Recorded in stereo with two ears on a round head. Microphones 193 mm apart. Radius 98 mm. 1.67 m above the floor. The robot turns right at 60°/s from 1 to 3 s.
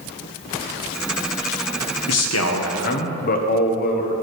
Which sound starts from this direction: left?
A man speaking, at 2.1 s.